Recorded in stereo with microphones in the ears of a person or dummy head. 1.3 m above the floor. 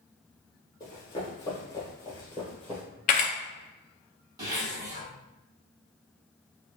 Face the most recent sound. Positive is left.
turn(degrees=-20)  # may be behind; listen again after turning